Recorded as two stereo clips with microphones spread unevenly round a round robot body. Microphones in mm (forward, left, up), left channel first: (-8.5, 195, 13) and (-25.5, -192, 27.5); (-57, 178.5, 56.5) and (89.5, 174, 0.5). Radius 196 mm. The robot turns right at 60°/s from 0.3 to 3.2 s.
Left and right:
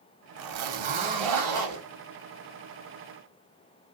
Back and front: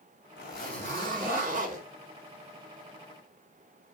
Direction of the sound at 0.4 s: 135° right.